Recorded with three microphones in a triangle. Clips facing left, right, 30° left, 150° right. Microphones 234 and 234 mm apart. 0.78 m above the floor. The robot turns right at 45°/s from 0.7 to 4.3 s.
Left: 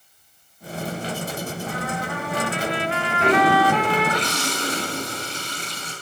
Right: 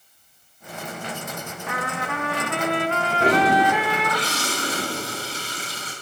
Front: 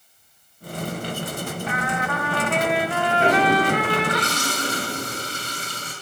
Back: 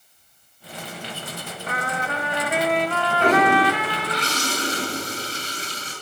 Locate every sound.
1.7 s a trumpet: 105° right, 0.9 m; by 4.2 s 5° left, 0.9 m
3.2 s a toilet flushing: 55° right, 3 m; by 5.9 s 5° right, 3 m